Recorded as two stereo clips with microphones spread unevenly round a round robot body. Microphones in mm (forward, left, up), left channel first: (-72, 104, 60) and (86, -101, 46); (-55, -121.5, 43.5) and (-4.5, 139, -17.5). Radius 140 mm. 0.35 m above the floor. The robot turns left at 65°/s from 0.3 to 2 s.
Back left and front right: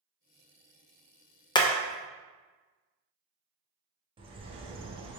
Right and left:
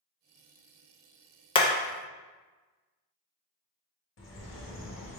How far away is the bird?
About 0.8 m.